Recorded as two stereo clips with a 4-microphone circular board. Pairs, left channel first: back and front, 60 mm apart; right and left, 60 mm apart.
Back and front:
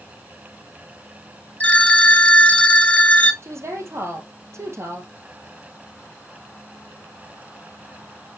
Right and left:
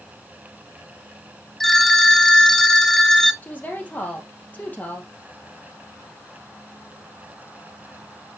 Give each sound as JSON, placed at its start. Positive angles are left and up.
{"t": 1.6, "sound": "a phone ringing", "azimuth_deg": -165, "distance_m": 0.7}
{"t": 3.4, "sound": "a woman speaking", "azimuth_deg": -30, "distance_m": 2.5}